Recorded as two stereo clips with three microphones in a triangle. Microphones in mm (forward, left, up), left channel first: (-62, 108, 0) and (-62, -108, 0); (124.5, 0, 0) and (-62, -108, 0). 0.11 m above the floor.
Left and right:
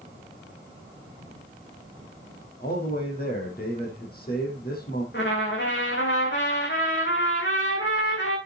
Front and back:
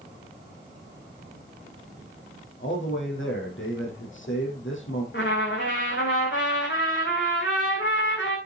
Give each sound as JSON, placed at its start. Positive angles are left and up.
{"t": 2.6, "sound": "a man speaking", "azimuth_deg": 50, "distance_m": 4.5}
{"t": 5.1, "sound": "a trumpet", "azimuth_deg": 60, "distance_m": 5.5}